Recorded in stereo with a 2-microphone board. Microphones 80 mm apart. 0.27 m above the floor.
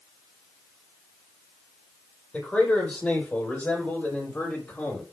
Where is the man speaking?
15° left (ahead or behind), 10 m; by 5.0 s 20° left (ahead or behind), 7.5 m.